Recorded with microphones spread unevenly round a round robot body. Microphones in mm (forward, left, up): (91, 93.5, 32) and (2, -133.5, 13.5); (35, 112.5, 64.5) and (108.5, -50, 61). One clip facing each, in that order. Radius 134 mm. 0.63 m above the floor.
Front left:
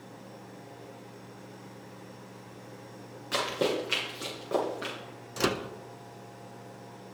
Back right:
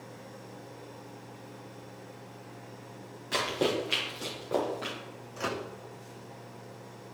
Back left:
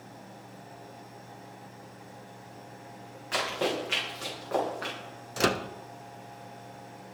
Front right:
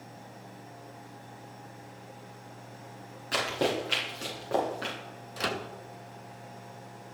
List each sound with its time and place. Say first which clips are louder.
3.3 s running footsteps: even, front right 1 dB; 15° right, 5.5 m; by 5.0 s 5° right, 5 m
5.4 s a microwave: front left 6 dB, back left 7 dB; 90° left, 0.6 m